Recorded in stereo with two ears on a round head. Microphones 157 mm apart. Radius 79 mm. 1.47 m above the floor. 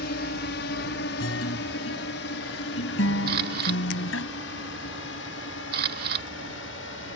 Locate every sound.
0.0 s a drone: 70° left (ahead or behind); by 7.2 s 80° left
1.2 s a guitar: 85° left
3.3 s a camera shutter: 60° right (ahead or behind)